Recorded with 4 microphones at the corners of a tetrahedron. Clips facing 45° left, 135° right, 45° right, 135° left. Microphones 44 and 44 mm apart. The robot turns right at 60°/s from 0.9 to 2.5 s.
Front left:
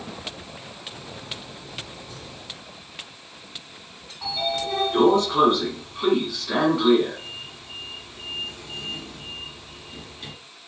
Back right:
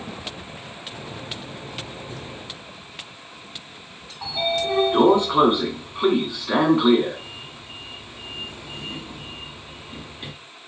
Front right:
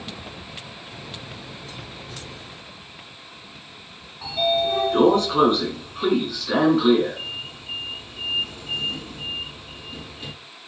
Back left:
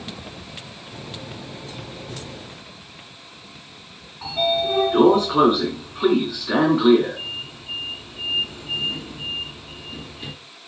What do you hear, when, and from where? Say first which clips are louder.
4.2 s a sliding door: back right 3 dB, even; 160° right, 1.0 m